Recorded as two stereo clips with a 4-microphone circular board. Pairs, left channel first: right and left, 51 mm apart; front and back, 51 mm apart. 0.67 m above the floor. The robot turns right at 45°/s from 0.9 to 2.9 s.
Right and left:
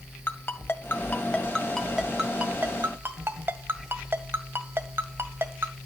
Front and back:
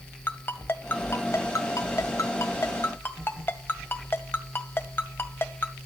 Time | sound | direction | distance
0.3 | a ringtone | 45° right | 1.8 m